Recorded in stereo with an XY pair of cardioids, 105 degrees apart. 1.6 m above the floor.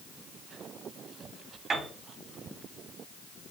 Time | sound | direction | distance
1.7 | a piano | 40° right | 3 m